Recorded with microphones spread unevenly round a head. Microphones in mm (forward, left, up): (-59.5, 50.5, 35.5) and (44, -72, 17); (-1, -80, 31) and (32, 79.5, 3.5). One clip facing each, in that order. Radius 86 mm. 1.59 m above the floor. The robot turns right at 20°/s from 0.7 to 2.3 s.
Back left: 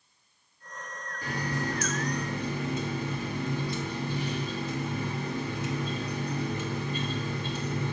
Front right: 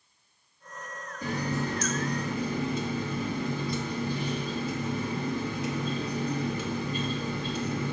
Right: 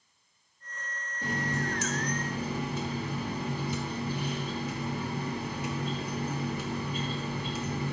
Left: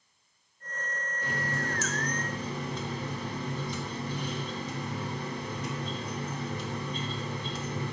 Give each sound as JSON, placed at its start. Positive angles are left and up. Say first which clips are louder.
{"t": 1.2, "sound": "a running tap", "louder": "front right 2 dB, right 3 dB", "azimuth_deg": -45, "distance_m": 1.5}